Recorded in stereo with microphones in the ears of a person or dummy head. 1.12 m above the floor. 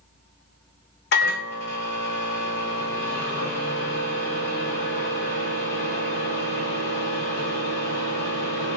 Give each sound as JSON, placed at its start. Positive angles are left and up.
{"t": 1.1, "sound": "a microwave", "side_deg": 65, "distance_m": 0.9}